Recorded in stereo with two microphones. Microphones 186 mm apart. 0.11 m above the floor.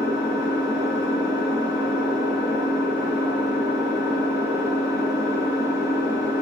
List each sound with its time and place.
0.0 s an engine running: 20° right (ahead or behind), 7 m